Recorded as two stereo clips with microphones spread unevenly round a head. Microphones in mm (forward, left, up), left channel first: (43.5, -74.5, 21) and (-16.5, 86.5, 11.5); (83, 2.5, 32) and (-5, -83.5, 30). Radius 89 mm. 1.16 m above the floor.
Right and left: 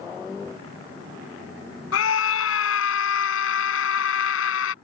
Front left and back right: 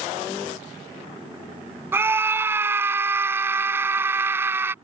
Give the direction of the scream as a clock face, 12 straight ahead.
2 o'clock.